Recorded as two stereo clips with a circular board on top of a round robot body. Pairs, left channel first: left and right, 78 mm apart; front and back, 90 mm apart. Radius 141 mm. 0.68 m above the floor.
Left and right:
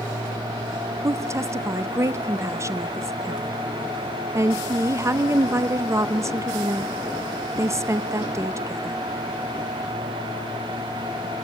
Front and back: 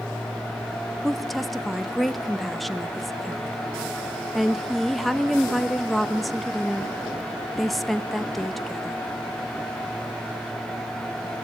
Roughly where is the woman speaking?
Right.